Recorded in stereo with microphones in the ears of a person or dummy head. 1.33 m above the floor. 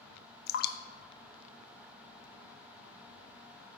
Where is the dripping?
60° left (ahead or behind), 0.6 m.